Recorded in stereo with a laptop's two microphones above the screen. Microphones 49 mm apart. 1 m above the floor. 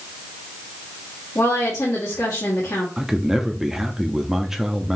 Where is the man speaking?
5° right (ahead or behind), 0.7 m.